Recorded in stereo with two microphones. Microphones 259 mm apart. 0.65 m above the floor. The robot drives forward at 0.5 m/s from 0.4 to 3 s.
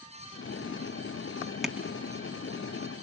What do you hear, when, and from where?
1.6 s tapping: centre (ahead or behind), 1.1 m